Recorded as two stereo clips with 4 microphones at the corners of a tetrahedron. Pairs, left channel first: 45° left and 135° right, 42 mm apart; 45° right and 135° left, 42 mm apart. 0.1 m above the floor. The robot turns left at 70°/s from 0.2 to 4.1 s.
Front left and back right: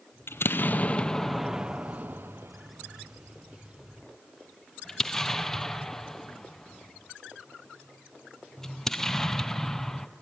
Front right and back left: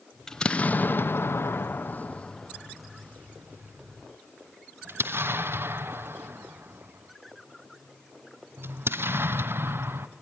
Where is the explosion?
35° left, 0.7 m; by 10.1 s 125° left, 0.7 m.